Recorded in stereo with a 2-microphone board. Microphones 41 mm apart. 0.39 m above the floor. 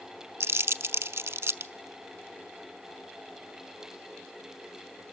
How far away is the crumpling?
About 0.6 m.